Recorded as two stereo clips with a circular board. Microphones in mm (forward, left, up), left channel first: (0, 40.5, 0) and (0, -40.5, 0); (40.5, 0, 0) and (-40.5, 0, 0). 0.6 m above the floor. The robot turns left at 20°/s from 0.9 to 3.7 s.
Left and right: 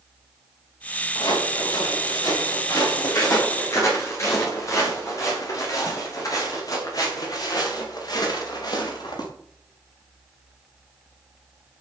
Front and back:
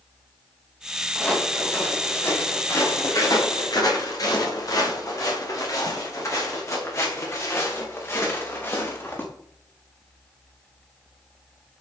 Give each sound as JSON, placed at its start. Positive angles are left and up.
{"t": 1.1, "sound": "footsteps", "azimuth_deg": 80, "distance_m": 10.0}